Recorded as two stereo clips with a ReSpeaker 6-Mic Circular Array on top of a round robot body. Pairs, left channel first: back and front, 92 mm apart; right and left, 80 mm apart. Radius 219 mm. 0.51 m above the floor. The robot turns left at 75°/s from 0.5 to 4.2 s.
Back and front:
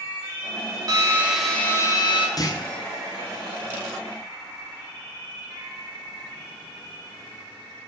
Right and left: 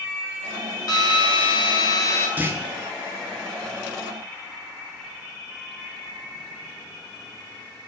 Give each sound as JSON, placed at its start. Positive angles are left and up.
{"t": 0.9, "sound": "a drill", "azimuth_deg": -50, "distance_m": 1.9}
{"t": 2.4, "sound": "a clunk", "azimuth_deg": 155, "distance_m": 1.7}